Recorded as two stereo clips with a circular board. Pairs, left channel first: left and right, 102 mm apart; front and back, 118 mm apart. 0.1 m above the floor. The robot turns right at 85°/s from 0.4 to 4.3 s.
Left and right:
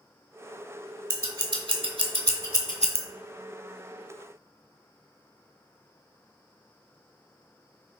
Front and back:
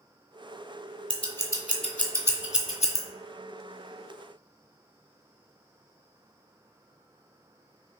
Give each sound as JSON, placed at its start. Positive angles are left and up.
{"t": 1.1, "sound": "scissors", "azimuth_deg": -155, "distance_m": 0.7}